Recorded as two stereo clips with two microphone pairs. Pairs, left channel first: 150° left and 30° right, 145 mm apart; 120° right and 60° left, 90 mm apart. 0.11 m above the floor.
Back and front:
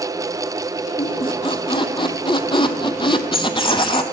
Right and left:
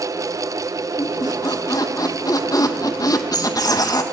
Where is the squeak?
160° right, 0.5 m.